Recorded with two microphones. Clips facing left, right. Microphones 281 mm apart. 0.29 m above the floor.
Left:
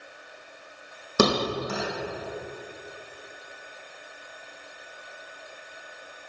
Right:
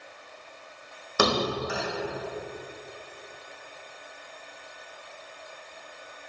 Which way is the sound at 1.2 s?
40° left (ahead or behind).